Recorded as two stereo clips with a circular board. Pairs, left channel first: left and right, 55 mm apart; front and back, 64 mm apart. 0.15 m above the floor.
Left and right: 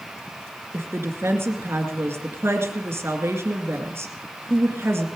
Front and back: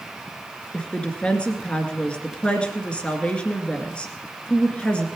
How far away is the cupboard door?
No cupboard door in this recording.